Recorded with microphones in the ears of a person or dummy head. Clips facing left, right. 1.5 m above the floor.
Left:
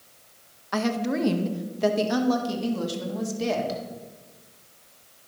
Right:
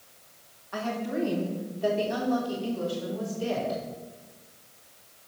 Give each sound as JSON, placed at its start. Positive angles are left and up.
{"t": 0.7, "sound": "a woman speaking", "side_deg": 70, "distance_m": 1.1}